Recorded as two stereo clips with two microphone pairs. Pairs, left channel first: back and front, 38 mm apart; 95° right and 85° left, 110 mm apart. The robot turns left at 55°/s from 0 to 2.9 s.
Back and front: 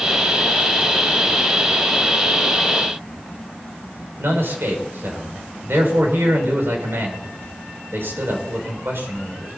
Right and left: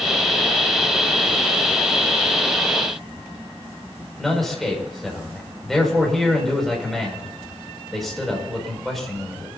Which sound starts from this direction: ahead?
A man speaking, at 4.2 s.